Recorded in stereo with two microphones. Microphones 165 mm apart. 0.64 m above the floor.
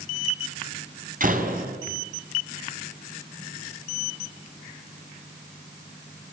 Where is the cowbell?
I don't hear a cowbell.